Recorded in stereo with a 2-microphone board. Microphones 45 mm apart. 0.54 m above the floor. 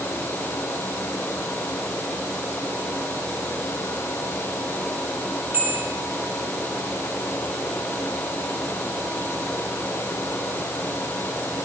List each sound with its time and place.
5.5 s a bell: 50° right (ahead or behind), 7.5 m